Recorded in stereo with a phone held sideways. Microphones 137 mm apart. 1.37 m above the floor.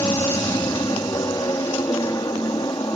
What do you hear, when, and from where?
0.0 s an aircraft: 30° left (ahead or behind)